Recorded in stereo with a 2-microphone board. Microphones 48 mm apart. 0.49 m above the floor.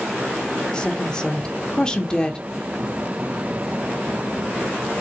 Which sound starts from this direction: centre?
A woman speaking, at 0.7 s.